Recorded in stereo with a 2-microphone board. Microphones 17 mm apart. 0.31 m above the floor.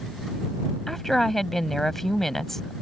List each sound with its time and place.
0.9 s a woman speaking: 20° left (ahead or behind)